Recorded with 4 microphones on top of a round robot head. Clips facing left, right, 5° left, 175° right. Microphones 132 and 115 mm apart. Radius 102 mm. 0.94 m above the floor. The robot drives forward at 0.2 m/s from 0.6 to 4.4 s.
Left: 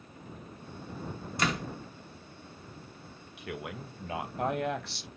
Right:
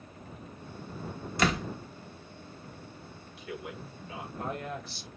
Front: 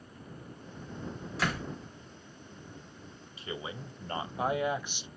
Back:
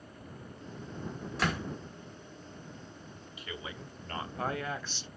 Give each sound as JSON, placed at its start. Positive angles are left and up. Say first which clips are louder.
{"t": 1.4, "sound": "a door slam", "louder": "right 3 dB, back 1 dB", "azimuth_deg": -85, "distance_m": 0.9}
{"t": 3.4, "sound": "a man speaking", "louder": "left 1 dB, front 4 dB", "azimuth_deg": 65, "distance_m": 0.9}